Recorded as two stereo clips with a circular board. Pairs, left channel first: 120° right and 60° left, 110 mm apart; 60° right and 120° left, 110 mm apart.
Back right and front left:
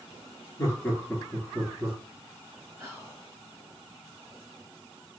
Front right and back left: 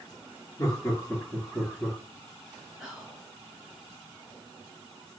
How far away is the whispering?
About 1.6 m.